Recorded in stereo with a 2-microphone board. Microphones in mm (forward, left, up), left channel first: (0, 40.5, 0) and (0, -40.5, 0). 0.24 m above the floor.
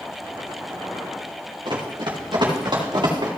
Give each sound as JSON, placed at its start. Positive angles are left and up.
{"t": 1.6, "sound": "running footsteps", "side_deg": -65, "distance_m": 4.0}